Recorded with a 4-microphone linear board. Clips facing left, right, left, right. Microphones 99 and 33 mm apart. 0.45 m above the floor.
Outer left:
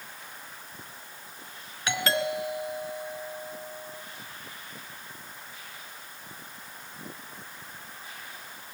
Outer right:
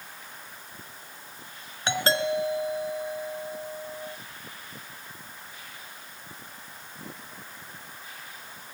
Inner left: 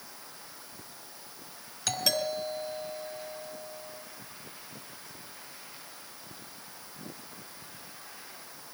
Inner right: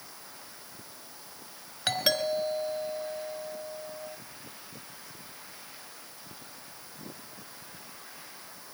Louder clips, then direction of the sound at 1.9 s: Outer right 3 dB, inner right 3 dB; 30° right (ahead or behind).